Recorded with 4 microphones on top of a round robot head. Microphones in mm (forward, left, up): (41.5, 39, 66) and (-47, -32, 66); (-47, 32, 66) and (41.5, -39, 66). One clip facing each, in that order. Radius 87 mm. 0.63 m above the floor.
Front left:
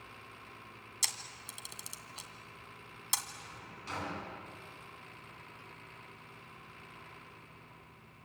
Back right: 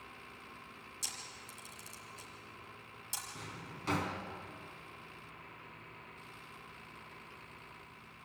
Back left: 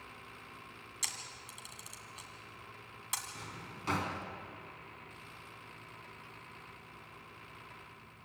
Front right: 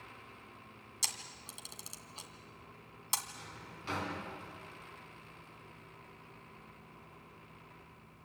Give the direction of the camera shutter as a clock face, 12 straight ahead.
11 o'clock.